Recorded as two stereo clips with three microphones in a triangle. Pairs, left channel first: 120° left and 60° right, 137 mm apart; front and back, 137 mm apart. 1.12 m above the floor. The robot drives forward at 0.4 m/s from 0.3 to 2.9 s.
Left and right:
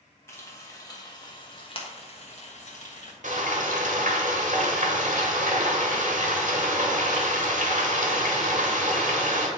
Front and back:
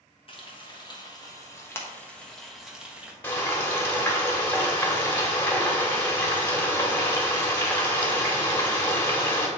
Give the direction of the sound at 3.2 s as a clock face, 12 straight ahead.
2 o'clock.